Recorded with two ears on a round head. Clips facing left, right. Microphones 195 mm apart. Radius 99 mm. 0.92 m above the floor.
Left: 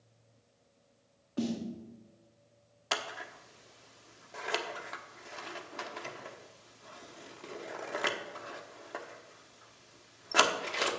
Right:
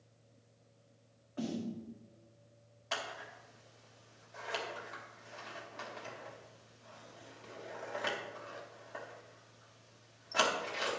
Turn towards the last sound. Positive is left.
turn(degrees=70)  # may be behind; listen again after turning